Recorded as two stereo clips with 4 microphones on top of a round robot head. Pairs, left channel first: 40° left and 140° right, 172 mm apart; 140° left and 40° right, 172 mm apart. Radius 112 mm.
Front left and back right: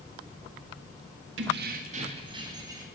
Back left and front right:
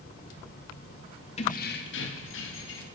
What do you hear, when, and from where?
1.4 s keys jangling: 165° right, 1.1 m; by 2.9 s 145° left, 2.5 m